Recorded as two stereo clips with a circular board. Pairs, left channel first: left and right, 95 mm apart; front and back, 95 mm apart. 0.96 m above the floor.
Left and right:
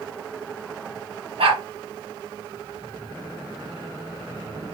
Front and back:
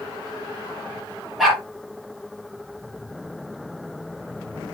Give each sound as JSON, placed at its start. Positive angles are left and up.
{"t": 1.4, "sound": "a dog barking", "azimuth_deg": -90, "distance_m": 5.5}